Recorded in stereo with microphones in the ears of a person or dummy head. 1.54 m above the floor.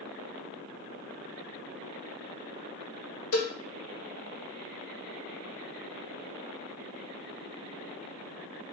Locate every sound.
3.3 s a cowbell: 75° left (ahead or behind), 1.3 m